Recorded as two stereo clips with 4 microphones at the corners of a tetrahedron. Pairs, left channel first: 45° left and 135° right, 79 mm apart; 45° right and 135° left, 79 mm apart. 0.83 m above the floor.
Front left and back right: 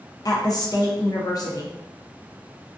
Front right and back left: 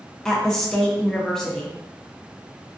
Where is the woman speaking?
35° left, 0.6 m.